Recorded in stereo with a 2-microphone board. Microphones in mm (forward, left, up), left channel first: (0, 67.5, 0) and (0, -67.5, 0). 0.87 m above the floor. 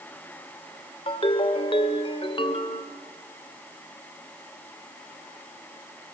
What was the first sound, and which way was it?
A ringtone, 40° left (ahead or behind).